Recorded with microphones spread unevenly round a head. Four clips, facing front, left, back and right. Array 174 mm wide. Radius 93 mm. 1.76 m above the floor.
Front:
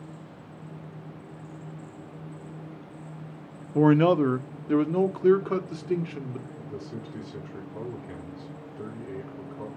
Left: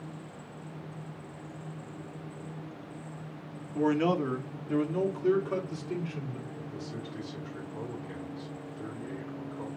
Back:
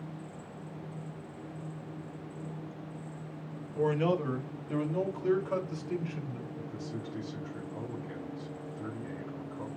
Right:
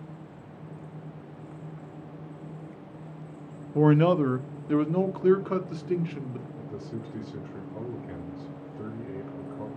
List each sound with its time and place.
3.8 s a man speaking: 25° right, 0.8 m; by 6.5 s 35° right, 2 m
6.6 s a man speaking: 55° right, 5.5 m